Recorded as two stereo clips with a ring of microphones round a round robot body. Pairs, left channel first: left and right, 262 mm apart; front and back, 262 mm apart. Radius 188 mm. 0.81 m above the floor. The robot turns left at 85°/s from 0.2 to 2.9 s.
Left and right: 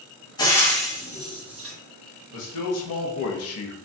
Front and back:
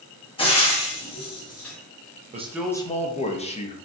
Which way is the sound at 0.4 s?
40° left.